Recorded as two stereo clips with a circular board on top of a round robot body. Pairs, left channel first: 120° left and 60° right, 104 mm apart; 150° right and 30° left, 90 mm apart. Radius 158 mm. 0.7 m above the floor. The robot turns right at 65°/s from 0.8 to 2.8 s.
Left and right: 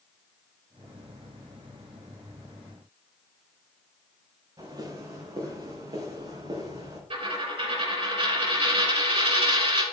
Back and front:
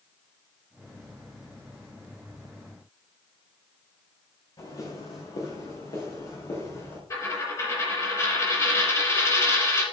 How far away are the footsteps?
About 5.5 m.